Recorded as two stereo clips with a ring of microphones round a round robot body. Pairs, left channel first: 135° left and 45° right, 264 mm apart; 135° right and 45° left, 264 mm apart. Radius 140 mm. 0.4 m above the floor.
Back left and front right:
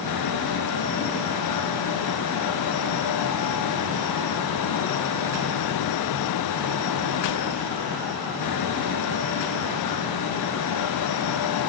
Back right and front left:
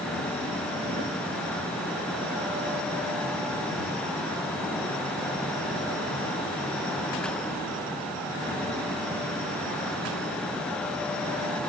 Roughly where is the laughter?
No laughter in this recording.